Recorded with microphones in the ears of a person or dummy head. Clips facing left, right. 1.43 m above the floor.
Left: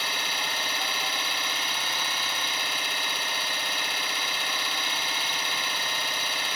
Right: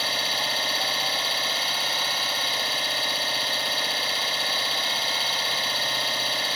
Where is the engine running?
30° right (ahead or behind), 1.9 m.